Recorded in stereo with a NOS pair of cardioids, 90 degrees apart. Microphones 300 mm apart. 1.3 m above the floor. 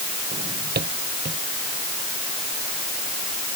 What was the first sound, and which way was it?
A drawer, 35° right.